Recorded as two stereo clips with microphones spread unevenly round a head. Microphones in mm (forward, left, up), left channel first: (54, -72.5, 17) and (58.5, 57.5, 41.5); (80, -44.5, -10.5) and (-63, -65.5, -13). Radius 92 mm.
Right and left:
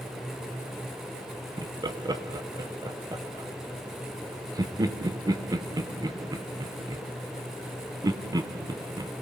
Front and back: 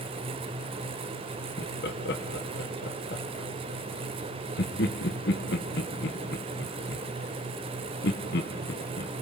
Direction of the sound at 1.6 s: 25° left.